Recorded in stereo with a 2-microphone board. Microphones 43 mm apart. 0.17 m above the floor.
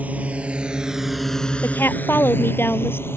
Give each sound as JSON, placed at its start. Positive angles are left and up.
{"t": 0.0, "sound": "a drone", "side_deg": -40}
{"t": 1.6, "sound": "a woman speaking", "side_deg": 70}